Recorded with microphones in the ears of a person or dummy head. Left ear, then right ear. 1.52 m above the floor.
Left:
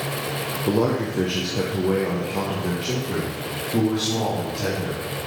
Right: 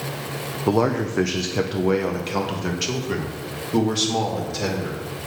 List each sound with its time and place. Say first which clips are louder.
0.7 s a man speaking: right 2 dB; 40° right (ahead or behind), 1.0 m